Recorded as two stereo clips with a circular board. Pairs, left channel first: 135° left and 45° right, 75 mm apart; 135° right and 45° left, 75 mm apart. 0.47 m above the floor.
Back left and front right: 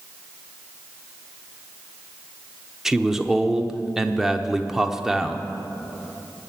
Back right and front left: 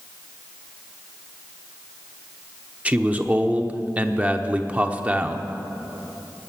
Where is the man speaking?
25° left, 0.8 m.